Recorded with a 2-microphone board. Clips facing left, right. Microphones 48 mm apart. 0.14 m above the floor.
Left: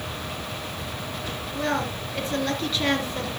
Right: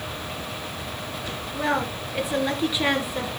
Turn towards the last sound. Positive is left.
turn(degrees=-15)  # may be behind; listen again after turning